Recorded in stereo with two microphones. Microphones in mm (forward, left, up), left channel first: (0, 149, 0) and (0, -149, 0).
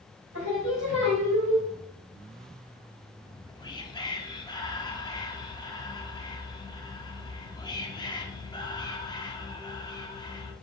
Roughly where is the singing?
Right.